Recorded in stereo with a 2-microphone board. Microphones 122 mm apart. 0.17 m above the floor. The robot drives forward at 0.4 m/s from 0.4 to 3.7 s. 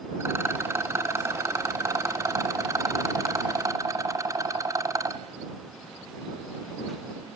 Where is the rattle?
20° right (ahead or behind), 2 m; by 5.2 s 25° right (ahead or behind), 1.7 m.